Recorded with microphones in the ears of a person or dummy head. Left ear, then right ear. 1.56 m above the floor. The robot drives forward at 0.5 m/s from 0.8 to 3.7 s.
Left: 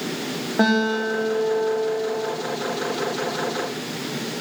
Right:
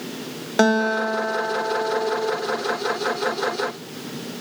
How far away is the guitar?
About 1.8 m.